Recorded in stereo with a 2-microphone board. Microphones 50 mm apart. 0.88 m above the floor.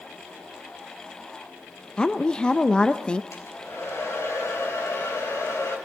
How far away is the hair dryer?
About 4 m.